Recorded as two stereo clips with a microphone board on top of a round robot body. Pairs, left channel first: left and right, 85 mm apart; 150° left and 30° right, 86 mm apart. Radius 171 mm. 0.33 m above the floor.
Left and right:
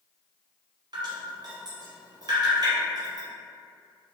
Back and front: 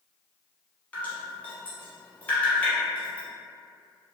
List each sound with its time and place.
0.9 s dripping: 135° right, 1.0 m